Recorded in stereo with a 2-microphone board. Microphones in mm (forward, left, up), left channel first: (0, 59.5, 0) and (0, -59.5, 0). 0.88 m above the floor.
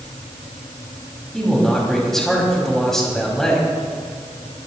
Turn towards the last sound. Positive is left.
turn(degrees=5)  # may be behind; listen again after turning